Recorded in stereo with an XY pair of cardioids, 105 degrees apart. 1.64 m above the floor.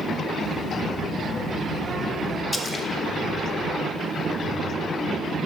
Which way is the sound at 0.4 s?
15° right.